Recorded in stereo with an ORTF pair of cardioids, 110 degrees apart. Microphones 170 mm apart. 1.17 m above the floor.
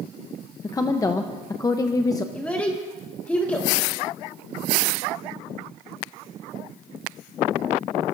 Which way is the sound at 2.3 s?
10° left.